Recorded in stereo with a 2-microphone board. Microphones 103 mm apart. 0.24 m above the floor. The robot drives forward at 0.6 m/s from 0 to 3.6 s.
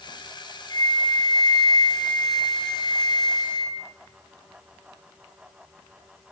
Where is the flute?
65° right (ahead or behind), 6.5 m; by 3.8 s 75° right (ahead or behind), 6 m.